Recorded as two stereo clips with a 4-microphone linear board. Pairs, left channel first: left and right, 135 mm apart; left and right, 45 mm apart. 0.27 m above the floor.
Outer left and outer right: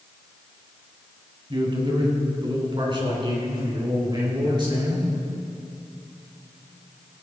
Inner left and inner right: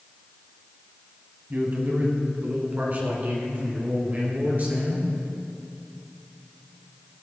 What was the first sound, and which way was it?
A man speaking, 40° right (ahead or behind).